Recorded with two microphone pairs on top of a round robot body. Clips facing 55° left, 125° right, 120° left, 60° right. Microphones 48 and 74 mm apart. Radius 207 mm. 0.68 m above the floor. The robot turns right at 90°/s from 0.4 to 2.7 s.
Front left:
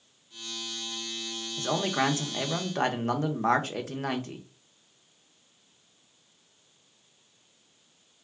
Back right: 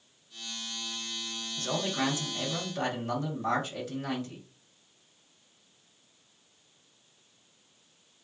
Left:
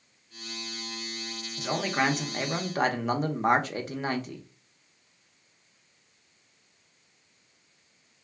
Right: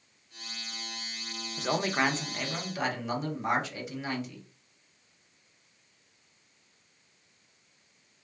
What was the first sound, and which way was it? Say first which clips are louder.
A man speaking: front left 4 dB, even; 20° right.